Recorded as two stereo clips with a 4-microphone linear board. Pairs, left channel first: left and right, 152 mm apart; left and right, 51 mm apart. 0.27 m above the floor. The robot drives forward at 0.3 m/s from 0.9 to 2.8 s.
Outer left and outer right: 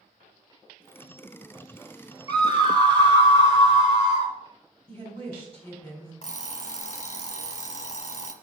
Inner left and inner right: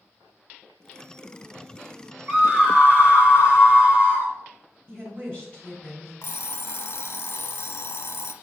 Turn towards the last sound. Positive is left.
turn(degrees=45)  # may be behind; listen again after turning